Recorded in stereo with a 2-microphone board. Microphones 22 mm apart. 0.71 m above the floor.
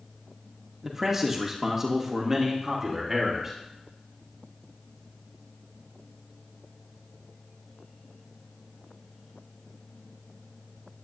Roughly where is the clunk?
No clunk in this recording.